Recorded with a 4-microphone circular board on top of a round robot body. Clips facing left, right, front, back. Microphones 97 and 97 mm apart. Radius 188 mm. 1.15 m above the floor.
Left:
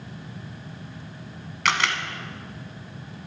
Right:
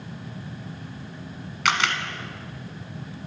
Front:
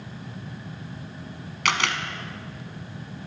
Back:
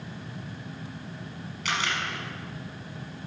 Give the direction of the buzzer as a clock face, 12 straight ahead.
No buzzer in this recording.